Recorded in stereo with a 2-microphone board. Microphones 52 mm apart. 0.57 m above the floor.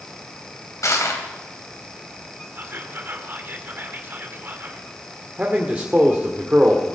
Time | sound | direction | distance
0.8 | crushing | 75° left (ahead or behind) | 3 m
2.5 | whispering | 40° right (ahead or behind) | 2 m
5.4 | a man speaking | 25° right (ahead or behind) | 1.8 m